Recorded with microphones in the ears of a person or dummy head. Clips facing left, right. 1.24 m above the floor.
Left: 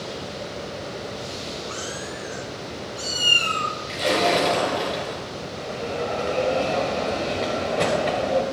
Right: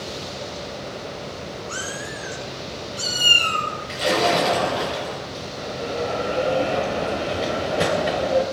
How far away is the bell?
About 1.9 m.